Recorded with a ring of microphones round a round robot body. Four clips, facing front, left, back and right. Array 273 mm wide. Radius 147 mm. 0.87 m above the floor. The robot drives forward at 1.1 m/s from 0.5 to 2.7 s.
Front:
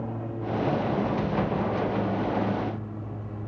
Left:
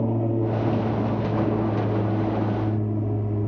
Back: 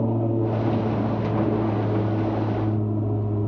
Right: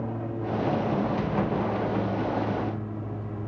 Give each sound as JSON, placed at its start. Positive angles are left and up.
{"t": 0.0, "sound": "an aircraft", "azimuth_deg": 140}